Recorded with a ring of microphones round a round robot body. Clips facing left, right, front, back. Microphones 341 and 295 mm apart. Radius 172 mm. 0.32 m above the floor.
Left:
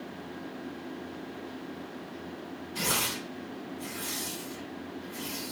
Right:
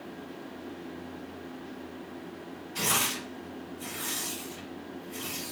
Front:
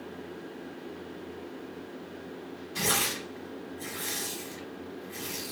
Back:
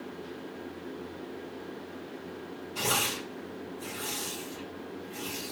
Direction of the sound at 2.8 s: 10° right.